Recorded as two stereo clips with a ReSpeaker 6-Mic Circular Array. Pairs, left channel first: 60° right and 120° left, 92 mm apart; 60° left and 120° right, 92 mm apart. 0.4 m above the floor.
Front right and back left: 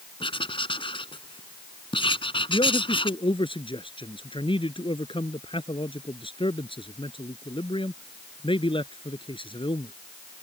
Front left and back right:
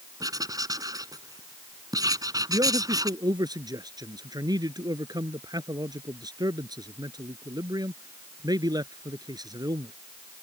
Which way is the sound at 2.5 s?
75° right.